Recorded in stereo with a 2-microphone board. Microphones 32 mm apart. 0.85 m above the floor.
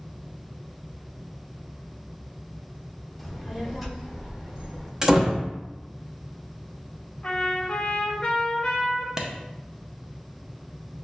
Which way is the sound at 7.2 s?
30° left (ahead or behind).